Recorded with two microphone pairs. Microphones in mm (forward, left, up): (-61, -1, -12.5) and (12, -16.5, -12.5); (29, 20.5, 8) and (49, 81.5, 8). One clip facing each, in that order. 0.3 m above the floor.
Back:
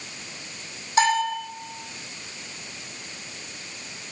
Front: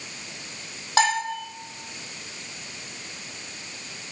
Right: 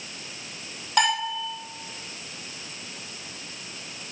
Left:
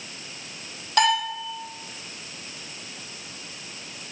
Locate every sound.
1.0 s a bell: 20° right, 5 m